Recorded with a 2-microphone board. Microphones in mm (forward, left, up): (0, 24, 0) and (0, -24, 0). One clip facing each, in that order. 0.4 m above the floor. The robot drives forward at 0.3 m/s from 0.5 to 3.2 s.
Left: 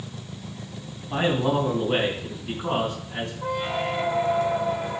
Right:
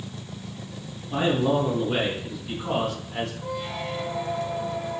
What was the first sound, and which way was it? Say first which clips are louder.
A man speaking: even; 35° left (ahead or behind).